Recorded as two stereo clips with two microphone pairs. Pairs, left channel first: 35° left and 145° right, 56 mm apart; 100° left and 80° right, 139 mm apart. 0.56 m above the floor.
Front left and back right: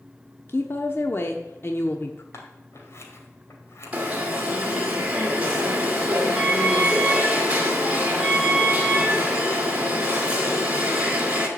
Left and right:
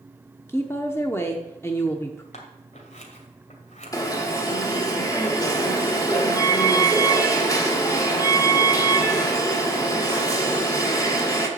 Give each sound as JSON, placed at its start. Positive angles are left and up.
{"t": 0.5, "sound": "a woman speaking", "azimuth_deg": 40, "distance_m": 1.0}
{"t": 2.3, "sound": "scissors", "azimuth_deg": 70, "distance_m": 2.0}
{"t": 3.9, "sound": "an alarm", "azimuth_deg": 155, "distance_m": 1.9}